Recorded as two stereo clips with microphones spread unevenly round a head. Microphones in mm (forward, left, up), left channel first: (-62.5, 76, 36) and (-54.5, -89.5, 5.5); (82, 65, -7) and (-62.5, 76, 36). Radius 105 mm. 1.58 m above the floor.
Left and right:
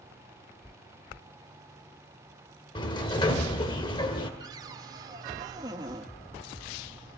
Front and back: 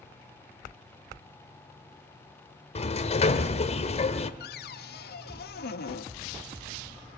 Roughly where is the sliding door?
Ahead left.